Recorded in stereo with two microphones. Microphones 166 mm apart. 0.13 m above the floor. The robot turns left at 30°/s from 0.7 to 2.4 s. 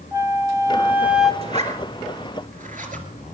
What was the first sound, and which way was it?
A flute, 20° right (ahead or behind).